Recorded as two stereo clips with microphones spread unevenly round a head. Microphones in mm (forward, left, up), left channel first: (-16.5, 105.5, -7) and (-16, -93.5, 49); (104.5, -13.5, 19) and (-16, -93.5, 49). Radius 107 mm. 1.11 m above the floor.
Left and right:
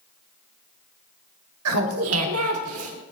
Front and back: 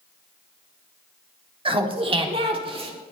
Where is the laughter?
95° right, 2 m.